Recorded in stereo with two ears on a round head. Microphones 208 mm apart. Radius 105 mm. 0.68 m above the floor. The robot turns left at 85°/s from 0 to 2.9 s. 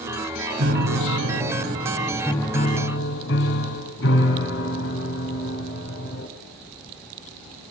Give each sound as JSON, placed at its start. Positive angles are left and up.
{"t": 0.6, "sound": "a piano", "azimuth_deg": -45, "distance_m": 4.5}